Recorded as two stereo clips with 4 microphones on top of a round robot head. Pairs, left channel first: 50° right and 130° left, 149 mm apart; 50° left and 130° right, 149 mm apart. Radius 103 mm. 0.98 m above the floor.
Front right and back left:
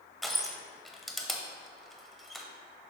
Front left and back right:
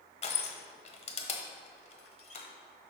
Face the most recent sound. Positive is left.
turn(degrees=35)